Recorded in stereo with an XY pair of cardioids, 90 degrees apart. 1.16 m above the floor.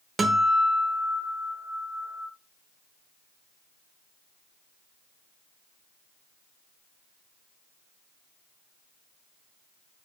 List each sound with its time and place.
0.2 s a guitar: 40° right, 1.1 m